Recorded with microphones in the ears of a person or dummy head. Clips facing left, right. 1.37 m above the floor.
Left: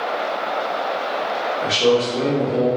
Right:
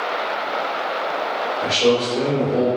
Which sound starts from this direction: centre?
A man speaking, at 1.6 s.